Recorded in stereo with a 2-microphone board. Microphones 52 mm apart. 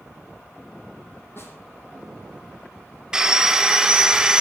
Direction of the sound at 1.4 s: 45° left (ahead or behind).